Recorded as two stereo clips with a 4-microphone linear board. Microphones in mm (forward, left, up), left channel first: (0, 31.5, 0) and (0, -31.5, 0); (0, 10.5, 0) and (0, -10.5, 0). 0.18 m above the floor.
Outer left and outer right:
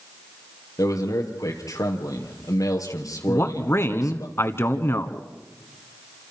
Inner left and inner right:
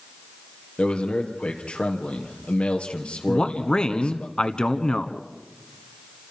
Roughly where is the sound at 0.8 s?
Left.